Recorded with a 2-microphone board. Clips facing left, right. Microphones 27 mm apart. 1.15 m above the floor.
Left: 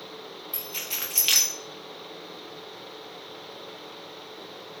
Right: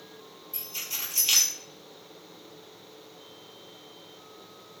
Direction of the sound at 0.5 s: 55° left (ahead or behind).